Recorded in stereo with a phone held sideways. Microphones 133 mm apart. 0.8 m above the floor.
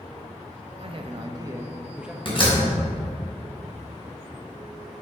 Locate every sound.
0.8 s a man speaking: 50° right (ahead or behind), 1.0 m; by 2.1 s 5° right (ahead or behind), 0.9 m
2.2 s a door slam: 45° left (ahead or behind), 3.5 m